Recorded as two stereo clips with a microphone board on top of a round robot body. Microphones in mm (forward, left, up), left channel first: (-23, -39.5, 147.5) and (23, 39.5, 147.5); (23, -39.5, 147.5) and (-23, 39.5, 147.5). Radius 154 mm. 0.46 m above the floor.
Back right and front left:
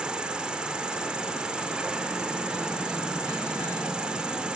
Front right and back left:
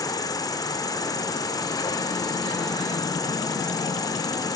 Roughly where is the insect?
Ahead.